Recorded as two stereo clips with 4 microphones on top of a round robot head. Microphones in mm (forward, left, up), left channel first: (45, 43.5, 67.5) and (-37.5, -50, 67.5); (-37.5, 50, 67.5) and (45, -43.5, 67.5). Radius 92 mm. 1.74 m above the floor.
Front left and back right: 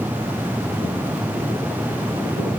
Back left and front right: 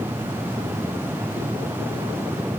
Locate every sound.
Only background noise.